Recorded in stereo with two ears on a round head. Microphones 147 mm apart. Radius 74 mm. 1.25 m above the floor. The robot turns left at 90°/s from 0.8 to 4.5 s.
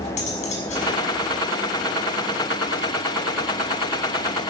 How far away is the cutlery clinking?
About 6.5 m.